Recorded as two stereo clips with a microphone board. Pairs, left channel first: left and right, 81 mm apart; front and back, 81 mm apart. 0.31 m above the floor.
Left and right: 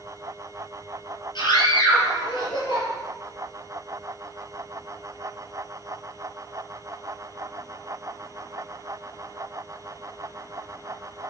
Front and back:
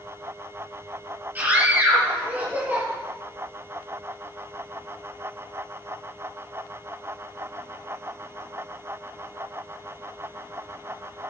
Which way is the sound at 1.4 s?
110° left.